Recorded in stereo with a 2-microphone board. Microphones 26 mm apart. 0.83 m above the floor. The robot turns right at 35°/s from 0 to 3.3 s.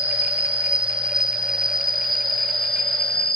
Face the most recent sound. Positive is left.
turn(degrees=35)